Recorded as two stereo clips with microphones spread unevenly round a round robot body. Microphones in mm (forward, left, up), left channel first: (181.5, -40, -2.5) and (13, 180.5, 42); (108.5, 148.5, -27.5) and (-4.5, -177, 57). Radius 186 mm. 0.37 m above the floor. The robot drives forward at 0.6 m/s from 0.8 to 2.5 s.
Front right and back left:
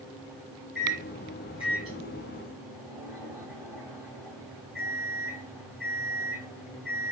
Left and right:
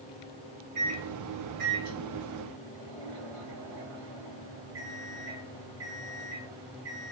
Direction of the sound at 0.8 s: 75° right.